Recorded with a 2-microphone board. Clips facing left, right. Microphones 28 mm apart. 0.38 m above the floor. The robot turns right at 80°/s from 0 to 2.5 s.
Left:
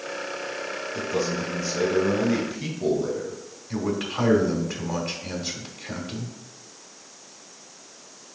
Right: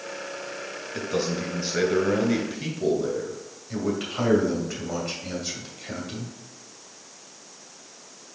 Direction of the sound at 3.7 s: Centre (ahead or behind).